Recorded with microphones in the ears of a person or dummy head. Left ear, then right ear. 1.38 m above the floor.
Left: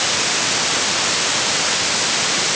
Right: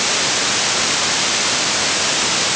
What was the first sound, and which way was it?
Only background noise.